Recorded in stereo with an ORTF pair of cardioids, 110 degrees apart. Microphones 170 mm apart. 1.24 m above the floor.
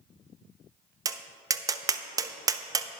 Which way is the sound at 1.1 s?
20° right.